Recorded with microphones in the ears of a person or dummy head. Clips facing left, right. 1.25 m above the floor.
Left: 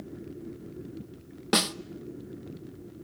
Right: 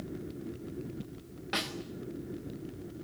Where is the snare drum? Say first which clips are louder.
Left 10 dB; 70° left (ahead or behind), 0.7 m.